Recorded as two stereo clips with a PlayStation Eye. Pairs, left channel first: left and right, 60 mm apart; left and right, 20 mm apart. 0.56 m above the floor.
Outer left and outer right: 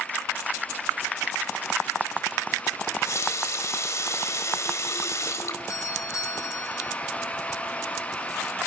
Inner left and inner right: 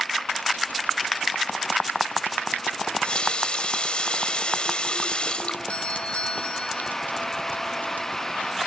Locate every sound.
2.8 s a running tap: 55° left (ahead or behind), 1.5 m
5.7 s a doorbell: 60° left (ahead or behind), 4 m